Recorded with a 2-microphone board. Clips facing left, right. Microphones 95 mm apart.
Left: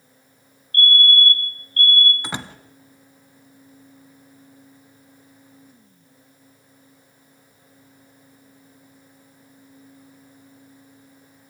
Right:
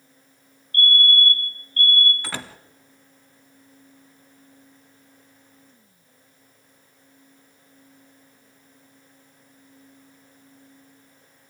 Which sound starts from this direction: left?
A door slam, at 2.2 s.